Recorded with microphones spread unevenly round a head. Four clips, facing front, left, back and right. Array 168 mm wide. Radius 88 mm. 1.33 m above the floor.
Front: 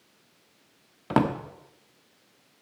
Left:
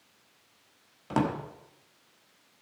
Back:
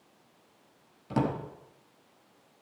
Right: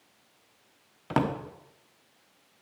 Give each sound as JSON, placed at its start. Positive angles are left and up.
{"t": 1.1, "sound": "a drawer", "azimuth_deg": -10, "distance_m": 1.3}